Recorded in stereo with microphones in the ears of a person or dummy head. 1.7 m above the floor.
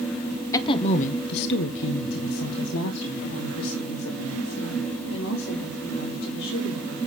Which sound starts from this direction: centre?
A woman speaking, at 0.5 s.